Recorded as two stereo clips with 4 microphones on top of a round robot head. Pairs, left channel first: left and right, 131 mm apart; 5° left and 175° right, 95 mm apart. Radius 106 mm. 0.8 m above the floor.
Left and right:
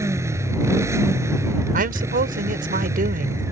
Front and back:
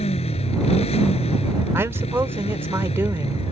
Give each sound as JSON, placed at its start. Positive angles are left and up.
{"t": 0.0, "sound": "a motorcycle", "azimuth_deg": -20}
{"t": 1.7, "sound": "a woman speaking", "azimuth_deg": -105}